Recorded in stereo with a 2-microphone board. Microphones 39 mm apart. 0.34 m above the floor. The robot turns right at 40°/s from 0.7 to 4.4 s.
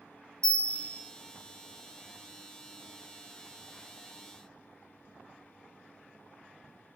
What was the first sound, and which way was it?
A bell, 10° left (ahead or behind).